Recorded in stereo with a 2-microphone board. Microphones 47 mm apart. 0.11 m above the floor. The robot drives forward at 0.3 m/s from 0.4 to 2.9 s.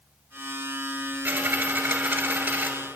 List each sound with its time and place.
1.2 s a dropped coin: 40° right (ahead or behind), 0.7 m; by 2.7 s 35° right (ahead or behind), 0.8 m